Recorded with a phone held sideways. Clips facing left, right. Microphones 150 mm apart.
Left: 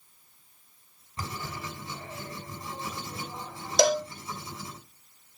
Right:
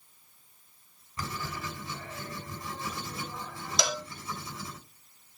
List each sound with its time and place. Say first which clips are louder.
1.2 s writing: even; 30° left (ahead or behind), 6 m
3.8 s a cowbell: left 10 dB; 50° left (ahead or behind), 1.3 m